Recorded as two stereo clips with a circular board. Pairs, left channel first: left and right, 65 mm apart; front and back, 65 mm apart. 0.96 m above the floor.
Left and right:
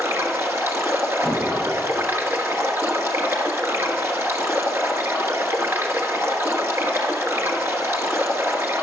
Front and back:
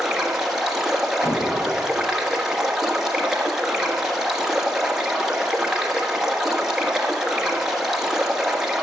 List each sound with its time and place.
0.0 s running water: 100° right, 1.2 m
1.2 s hammering: 45° right, 4 m